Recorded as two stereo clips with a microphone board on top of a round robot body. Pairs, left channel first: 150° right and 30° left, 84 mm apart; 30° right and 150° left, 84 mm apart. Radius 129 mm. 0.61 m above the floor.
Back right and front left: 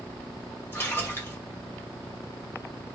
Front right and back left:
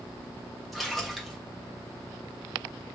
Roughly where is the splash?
Behind right.